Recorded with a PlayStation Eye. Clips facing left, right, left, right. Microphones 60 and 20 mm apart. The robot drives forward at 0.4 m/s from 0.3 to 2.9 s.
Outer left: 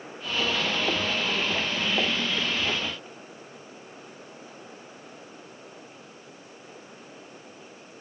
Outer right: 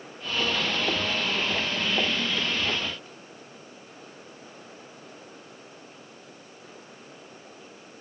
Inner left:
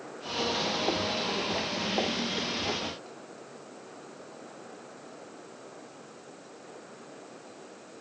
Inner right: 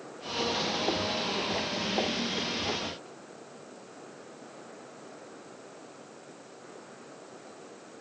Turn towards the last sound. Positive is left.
No sound to turn to.